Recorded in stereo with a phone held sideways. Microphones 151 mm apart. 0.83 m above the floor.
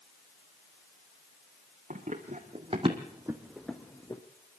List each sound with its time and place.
1.9 s running footsteps: 60° right (ahead or behind), 2.5 m; by 4.2 s 25° left (ahead or behind), 1.9 m